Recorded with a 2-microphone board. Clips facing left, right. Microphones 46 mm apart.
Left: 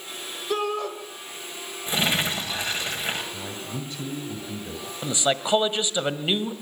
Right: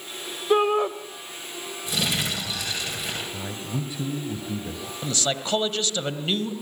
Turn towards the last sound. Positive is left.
turn(degrees=20)  # may be behind; listen again after turning